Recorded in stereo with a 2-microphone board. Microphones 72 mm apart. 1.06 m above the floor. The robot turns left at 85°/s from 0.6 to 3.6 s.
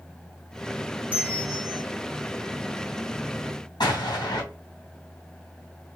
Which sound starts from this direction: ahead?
A bell, at 1.1 s.